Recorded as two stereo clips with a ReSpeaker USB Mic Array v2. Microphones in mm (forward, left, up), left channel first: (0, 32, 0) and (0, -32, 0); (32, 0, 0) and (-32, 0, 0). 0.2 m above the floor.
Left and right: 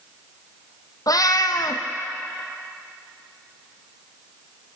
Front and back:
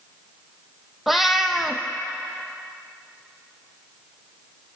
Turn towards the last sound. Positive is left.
turn(degrees=95)